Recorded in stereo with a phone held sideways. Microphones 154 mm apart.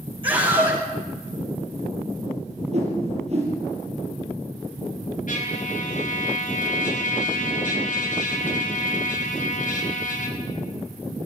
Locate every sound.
0.2 s a scream: 35° right (ahead or behind), 5.5 m
2.7 s a whoosh: 45° right (ahead or behind), 5.5 m
5.3 s a trumpet: 60° left (ahead or behind), 4.5 m